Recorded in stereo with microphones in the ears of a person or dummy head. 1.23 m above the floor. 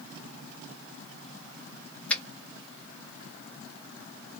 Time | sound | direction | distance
2.1 | a finger snap | 5° left (ahead or behind) | 1.6 m